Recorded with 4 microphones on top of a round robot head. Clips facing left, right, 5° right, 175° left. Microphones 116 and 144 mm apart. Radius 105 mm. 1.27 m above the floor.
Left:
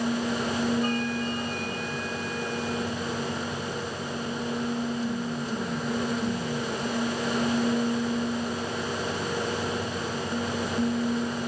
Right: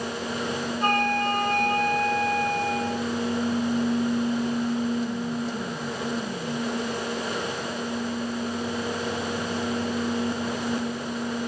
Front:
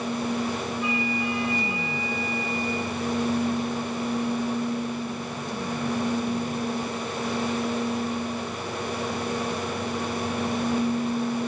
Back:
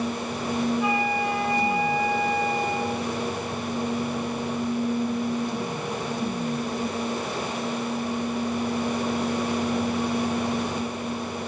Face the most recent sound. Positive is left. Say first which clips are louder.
# right 4 dB, back 3 dB
turn(degrees=-125)